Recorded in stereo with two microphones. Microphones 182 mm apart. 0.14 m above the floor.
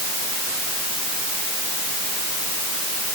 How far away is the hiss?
No hiss in this recording.